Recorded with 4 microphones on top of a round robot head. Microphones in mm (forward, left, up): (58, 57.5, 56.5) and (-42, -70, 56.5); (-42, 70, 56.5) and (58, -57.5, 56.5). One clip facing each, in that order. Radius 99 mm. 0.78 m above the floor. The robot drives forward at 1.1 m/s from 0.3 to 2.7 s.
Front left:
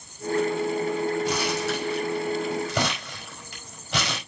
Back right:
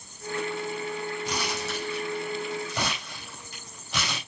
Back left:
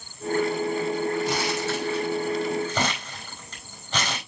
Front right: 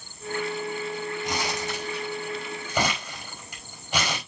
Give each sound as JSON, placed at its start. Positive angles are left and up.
{"t": 1.2, "sound": "crumpling", "azimuth_deg": 20, "distance_m": 6.0}